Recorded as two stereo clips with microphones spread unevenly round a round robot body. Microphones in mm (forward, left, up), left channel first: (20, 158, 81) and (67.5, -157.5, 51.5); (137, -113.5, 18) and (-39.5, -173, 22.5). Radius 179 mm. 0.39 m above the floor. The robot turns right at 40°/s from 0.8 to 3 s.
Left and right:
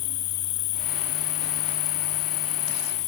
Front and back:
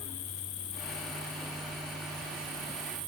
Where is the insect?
65° left; by 3.1 s 150° left.